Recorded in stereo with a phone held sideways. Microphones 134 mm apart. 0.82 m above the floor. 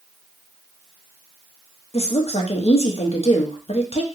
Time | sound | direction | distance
1.9 | a woman speaking | 50° left (ahead or behind) | 0.6 m